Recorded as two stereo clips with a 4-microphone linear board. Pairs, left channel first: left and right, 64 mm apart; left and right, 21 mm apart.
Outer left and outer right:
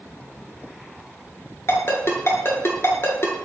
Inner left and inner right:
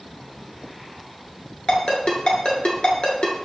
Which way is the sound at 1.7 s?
45° left (ahead or behind).